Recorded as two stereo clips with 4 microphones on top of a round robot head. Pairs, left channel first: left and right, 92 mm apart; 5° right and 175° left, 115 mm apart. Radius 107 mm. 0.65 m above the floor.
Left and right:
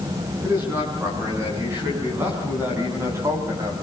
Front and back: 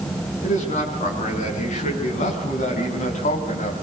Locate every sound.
0.4 s a man speaking: 20° right, 6.5 m; by 3.7 s 30° right, 4 m